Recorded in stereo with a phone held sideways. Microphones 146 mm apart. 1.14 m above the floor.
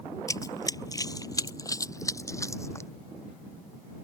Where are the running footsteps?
25° left (ahead or behind); by 2.9 s 20° left (ahead or behind).